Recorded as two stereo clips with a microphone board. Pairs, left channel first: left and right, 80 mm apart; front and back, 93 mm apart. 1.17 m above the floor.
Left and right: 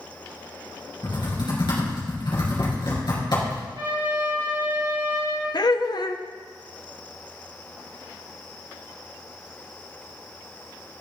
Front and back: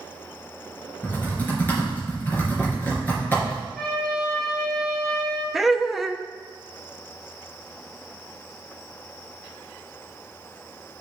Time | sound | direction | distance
1.0 | typing on a keyboard | 70° left | 3.5 m
3.8 | a trumpet | 85° right | 3.5 m
5.5 | laughter | 90° left | 0.6 m